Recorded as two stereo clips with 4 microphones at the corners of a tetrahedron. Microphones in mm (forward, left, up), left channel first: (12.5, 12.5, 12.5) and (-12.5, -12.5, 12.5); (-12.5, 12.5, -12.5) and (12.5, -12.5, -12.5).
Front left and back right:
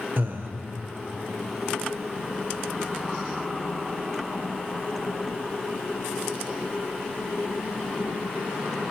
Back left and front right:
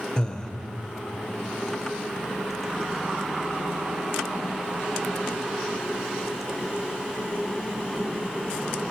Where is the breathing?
155° right, 0.6 m.